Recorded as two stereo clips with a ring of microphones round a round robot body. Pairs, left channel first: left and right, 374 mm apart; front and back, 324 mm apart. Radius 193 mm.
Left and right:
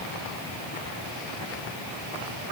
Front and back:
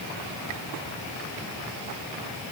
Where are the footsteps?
No footsteps in this recording.